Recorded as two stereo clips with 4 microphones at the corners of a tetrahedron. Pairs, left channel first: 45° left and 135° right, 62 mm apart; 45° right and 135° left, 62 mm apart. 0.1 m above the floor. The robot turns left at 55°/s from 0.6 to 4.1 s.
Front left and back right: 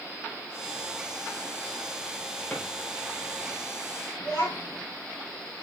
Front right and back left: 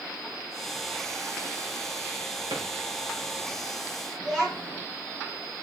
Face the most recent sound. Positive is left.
turn(degrees=55)